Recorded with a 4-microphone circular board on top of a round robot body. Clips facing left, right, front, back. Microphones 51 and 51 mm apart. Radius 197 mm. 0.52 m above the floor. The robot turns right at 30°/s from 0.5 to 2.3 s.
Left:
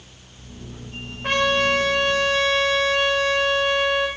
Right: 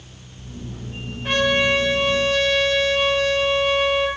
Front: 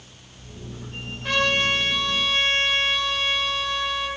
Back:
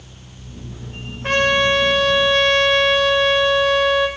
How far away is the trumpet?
About 1.6 m.